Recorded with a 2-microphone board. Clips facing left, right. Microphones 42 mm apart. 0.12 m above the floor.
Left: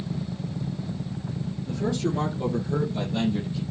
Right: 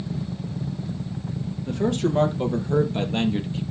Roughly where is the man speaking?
Right.